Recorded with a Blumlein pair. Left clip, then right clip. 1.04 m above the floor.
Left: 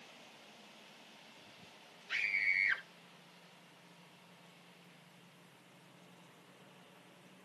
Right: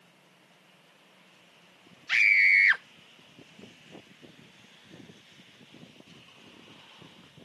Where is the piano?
I don't hear a piano.